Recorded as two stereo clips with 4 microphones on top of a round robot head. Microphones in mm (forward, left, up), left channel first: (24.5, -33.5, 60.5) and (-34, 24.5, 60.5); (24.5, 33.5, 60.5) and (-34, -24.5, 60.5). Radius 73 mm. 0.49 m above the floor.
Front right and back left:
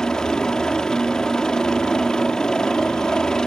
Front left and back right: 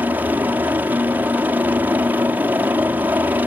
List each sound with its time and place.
0.0 s a helicopter: 115° right